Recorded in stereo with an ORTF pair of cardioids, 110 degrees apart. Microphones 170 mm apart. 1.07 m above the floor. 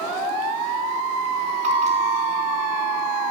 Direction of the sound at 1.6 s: 45° right.